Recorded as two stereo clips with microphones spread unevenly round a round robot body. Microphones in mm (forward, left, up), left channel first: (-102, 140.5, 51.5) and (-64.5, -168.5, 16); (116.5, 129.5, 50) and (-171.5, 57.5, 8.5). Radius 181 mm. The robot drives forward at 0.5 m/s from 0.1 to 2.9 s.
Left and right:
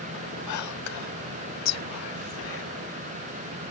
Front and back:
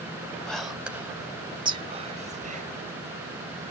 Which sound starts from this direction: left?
Whispering, at 0.5 s.